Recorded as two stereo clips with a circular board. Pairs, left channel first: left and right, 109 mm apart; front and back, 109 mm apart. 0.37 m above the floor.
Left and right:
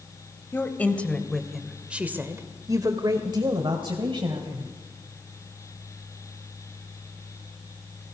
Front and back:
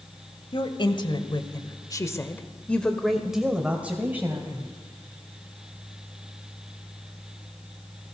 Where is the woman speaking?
25° left, 2 m; by 4.7 s 115° right, 2.5 m.